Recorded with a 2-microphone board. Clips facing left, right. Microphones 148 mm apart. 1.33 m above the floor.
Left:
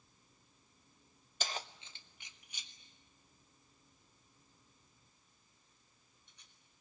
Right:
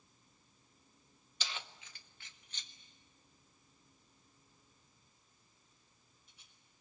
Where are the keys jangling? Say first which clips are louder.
Left 5 dB; 50° left (ahead or behind), 0.6 m; by 6.5 s 5° right (ahead or behind), 4.5 m.